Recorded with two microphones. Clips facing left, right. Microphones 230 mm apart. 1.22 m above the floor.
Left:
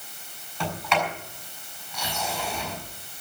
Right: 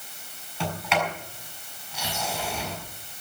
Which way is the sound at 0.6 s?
5° right (ahead or behind).